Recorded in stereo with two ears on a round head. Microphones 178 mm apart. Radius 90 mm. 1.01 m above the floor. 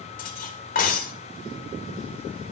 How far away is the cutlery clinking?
About 2.5 m.